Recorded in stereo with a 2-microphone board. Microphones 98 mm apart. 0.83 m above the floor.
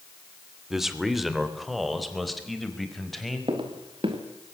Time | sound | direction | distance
0.7 | a man speaking | 5° right (ahead or behind) | 2.5 m
3.5 | footsteps | 60° right (ahead or behind) | 4 m